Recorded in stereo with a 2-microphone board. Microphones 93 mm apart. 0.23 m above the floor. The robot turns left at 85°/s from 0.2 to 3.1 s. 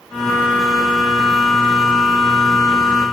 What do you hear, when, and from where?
Only background noise.